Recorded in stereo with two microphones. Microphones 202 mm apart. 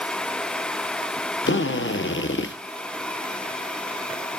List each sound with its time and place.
1.5 s a drill: 70° left (ahead or behind), 1.2 m